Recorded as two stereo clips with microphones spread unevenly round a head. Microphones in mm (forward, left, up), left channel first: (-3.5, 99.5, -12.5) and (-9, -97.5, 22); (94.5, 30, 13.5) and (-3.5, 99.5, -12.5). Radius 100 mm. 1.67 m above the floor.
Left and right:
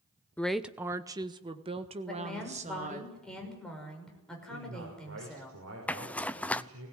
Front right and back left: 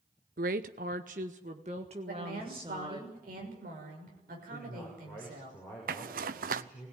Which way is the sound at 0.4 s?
175° left.